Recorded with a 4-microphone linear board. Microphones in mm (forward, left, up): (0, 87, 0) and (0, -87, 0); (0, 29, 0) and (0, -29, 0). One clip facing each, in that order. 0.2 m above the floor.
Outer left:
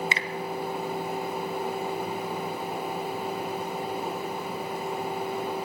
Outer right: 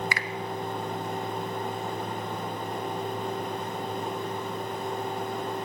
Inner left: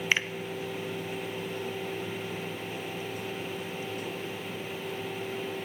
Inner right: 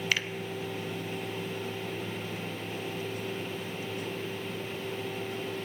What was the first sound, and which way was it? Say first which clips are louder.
A finger snap: outer left 1 dB, inner left 3 dB; 25° left (ahead or behind).